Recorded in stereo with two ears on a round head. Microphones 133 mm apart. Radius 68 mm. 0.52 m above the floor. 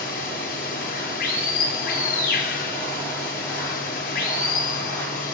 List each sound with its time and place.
0.0 s running water: 65° left (ahead or behind), 9.5 m